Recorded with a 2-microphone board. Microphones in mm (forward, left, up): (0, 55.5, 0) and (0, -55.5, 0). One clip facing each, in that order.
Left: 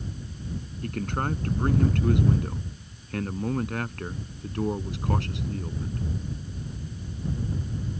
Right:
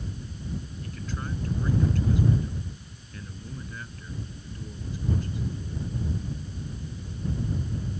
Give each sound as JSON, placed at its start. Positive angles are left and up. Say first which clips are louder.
{"t": 0.8, "sound": "a man speaking", "louder": "left 7 dB", "side_deg": 60}